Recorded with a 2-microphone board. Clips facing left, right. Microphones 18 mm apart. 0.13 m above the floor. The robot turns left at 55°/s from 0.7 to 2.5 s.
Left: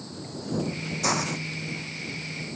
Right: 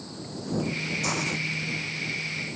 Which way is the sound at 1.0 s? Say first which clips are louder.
Left 4 dB; 30° left (ahead or behind).